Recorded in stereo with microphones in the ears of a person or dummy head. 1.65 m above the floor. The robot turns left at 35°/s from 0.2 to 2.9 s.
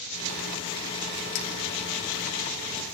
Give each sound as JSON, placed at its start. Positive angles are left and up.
{"t": 1.4, "sound": "a clink", "side_deg": 25, "distance_m": 0.8}